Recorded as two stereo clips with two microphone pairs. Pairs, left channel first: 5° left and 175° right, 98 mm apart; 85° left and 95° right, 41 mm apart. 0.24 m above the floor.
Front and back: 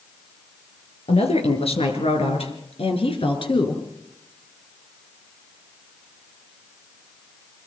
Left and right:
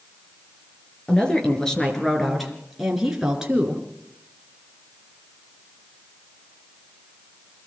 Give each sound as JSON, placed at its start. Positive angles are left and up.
{"t": 1.1, "sound": "a woman speaking", "azimuth_deg": 15, "distance_m": 5.0}